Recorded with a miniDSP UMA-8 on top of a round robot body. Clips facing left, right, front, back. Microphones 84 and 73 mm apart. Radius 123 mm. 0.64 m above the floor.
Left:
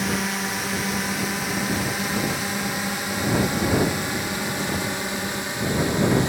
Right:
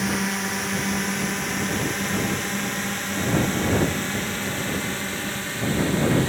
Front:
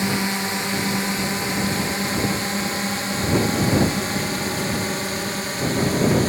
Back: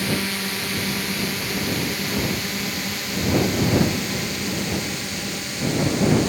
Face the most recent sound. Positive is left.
turn(degrees=25)